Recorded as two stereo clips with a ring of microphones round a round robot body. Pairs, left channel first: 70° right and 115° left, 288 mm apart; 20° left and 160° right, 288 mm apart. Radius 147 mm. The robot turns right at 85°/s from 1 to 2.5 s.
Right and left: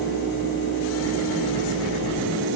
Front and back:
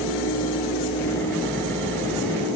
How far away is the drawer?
No drawer in this recording.